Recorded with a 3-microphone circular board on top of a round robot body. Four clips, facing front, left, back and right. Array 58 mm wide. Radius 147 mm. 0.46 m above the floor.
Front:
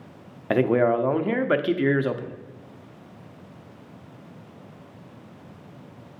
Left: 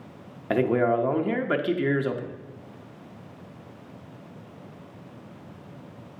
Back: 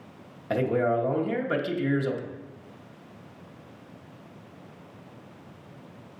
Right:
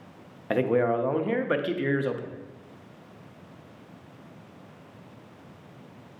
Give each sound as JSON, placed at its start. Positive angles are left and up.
{"t": 0.5, "sound": "a man speaking", "azimuth_deg": 5, "distance_m": 0.8}